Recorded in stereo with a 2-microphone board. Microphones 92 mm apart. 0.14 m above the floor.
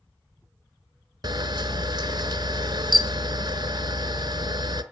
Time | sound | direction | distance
1.2 | a camera shutter | 50° right (ahead or behind) | 1.1 m